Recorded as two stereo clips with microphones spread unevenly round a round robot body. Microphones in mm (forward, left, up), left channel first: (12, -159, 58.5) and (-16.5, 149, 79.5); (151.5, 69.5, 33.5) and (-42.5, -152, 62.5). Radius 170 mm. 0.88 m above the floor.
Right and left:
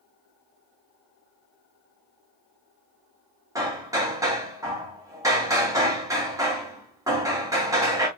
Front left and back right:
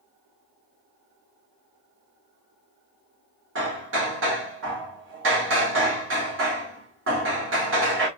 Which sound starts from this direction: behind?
Hammering, at 3.5 s.